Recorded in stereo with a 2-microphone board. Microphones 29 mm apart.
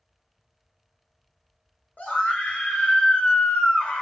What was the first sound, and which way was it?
A scream, 75° left (ahead or behind).